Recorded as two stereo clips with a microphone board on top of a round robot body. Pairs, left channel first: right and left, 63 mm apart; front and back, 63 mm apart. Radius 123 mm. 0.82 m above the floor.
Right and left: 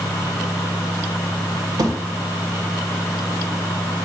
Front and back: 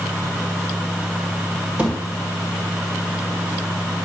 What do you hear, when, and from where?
1.8 s a thud: 110° left, 1.7 m